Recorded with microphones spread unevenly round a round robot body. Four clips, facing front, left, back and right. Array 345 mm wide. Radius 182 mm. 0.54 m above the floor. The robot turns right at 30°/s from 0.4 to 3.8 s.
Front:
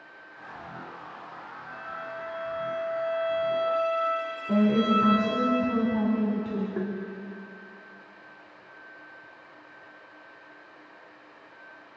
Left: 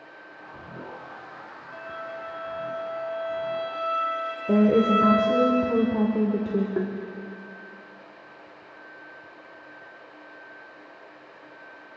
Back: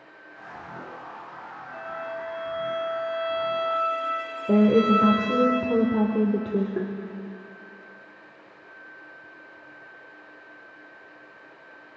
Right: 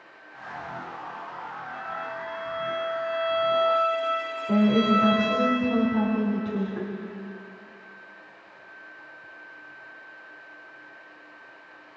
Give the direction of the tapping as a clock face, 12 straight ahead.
8 o'clock.